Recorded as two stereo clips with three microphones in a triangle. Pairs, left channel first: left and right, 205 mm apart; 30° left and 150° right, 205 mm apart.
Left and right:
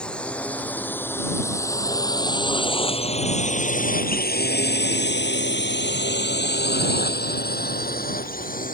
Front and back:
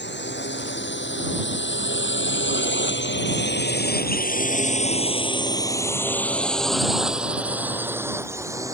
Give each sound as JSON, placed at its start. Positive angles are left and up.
{"t": 0.0, "sound": "a drone", "azimuth_deg": 5}